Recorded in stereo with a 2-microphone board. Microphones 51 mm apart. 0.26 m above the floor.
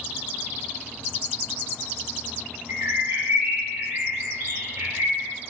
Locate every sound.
2.7 s a bird: 85° right, 0.9 m